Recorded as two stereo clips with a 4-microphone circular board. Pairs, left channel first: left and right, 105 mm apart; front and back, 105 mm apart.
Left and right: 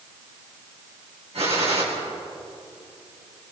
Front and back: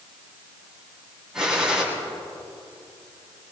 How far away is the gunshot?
About 7.5 m.